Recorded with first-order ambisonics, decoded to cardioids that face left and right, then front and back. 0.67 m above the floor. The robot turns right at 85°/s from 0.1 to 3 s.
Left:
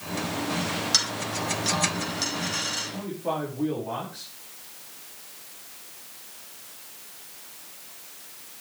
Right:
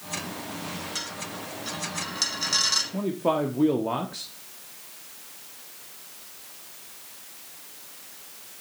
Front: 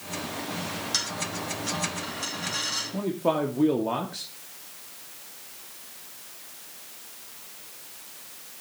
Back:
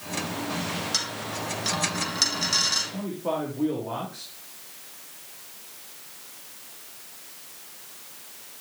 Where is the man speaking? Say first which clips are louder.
Right 5 dB, front 3 dB; 60° right, 1.6 m; by 4.3 s 55° right, 1.6 m.